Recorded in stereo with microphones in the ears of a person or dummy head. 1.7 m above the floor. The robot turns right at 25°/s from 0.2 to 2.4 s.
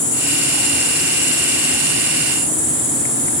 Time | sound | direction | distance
0.0 | an insect | 80° left | 1.9 m